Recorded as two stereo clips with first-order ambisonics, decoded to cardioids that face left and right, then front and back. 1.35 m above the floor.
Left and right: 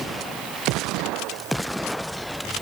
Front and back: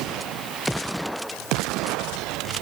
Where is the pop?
I don't hear a pop.